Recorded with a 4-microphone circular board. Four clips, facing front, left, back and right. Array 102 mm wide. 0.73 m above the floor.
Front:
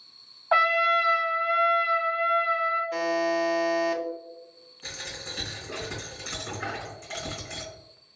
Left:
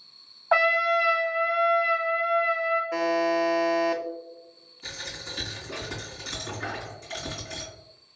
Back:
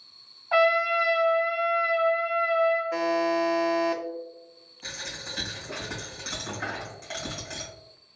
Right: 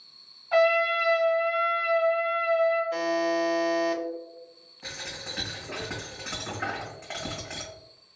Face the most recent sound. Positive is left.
turn(degrees=-105)